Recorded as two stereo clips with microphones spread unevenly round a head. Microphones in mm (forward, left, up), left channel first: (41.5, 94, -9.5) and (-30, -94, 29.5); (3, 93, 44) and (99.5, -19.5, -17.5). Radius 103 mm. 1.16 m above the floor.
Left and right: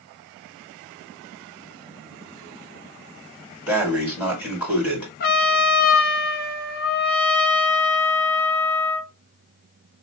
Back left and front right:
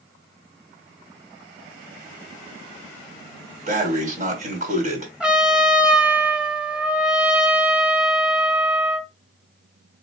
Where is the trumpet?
30° left, 1.5 m.